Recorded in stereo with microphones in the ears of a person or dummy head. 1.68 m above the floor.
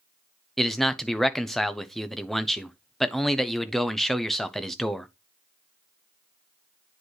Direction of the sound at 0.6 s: 5° left (ahead or behind).